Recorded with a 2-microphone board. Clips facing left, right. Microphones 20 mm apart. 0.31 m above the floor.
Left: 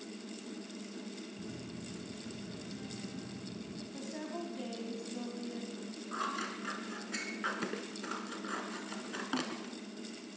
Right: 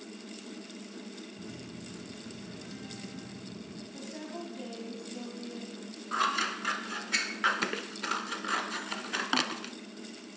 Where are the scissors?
70° right (ahead or behind), 0.9 m.